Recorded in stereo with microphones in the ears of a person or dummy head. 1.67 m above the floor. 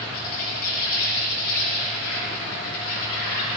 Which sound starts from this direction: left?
An insect, at 0.0 s.